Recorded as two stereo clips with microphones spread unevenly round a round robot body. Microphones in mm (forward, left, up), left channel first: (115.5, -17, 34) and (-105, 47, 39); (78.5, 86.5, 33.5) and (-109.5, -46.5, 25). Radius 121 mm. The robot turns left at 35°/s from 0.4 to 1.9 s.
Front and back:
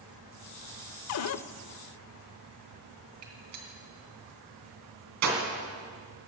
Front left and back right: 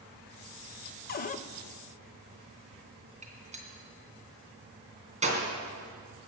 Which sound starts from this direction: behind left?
A gunshot, at 3.2 s.